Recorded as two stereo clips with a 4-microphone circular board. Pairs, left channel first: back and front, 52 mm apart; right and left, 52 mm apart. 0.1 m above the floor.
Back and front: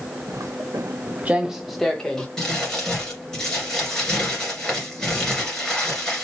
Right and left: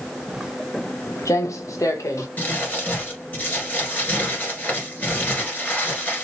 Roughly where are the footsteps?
Ahead.